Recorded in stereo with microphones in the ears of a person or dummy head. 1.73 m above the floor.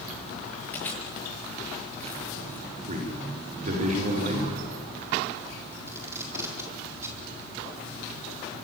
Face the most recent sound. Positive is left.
turn(degrees=-20)  # may be behind; listen again after turning